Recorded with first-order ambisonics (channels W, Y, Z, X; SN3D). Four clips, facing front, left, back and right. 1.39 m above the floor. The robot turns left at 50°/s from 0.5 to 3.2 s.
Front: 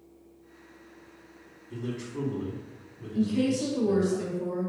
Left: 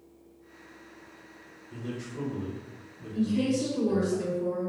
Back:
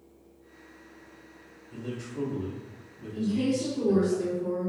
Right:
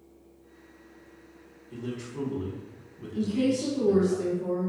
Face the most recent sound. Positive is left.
turn(degrees=5)